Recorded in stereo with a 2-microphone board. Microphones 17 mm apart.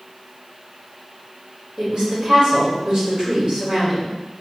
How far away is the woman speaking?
About 1.6 m.